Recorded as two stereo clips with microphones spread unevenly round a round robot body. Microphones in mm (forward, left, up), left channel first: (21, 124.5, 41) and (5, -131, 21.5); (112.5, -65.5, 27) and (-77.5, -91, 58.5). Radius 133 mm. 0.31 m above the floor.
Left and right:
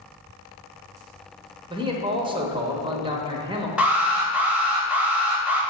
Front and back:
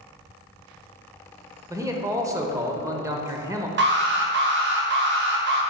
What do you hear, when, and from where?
1.7 s a man speaking: 100° right, 0.9 m
3.8 s an alarm: 175° right, 1.0 m